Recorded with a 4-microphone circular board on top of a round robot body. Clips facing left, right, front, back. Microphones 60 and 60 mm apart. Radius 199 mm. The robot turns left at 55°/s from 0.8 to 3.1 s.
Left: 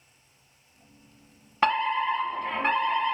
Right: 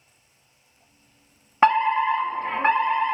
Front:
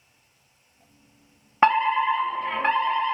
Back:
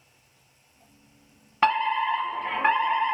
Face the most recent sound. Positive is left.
turn(degrees=-130)